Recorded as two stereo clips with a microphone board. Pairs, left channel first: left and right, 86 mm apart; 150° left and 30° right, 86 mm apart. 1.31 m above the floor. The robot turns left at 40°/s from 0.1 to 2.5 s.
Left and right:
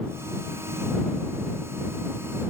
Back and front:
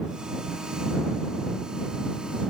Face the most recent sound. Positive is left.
No sound to turn to.